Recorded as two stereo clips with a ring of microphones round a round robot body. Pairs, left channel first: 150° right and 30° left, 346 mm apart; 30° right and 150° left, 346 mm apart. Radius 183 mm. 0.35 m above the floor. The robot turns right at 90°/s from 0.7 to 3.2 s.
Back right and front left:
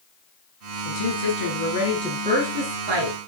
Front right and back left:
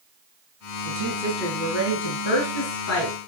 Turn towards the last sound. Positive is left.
turn(degrees=45)